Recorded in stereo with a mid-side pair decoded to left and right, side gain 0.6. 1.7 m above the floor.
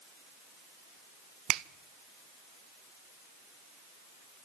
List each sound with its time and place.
1.5 s a finger snap: 65° right, 0.6 m